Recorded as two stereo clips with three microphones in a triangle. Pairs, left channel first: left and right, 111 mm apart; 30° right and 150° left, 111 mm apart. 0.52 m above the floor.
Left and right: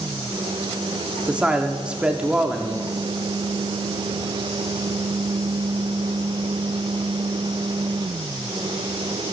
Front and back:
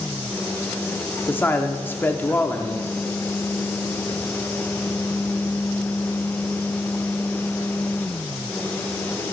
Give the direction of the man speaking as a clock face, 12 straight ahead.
1 o'clock.